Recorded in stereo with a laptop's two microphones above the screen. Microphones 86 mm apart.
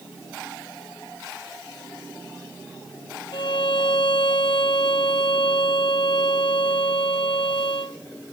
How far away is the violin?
About 0.7 m.